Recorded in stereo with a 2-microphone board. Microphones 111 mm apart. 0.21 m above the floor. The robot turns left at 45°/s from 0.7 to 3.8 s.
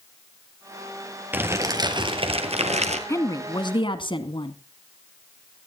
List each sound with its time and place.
1.3 s crumpling: 15° right, 2.5 m; by 3.0 s 90° right, 2.5 m
3.1 s a woman speaking: 145° left, 1.8 m; by 4.6 s 115° left, 1.8 m